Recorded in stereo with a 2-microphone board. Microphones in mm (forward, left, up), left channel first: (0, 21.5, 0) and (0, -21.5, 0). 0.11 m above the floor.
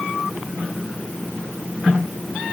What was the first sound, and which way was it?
Only background noise.